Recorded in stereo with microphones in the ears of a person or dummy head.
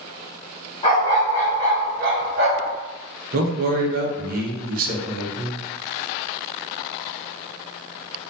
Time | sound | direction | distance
0.8 | a dog barking | 30° left (ahead or behind) | 0.8 m
3.3 | a man speaking | 50° right (ahead or behind) | 0.5 m